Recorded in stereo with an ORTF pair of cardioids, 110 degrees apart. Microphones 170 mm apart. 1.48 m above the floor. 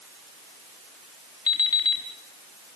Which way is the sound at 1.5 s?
25° left.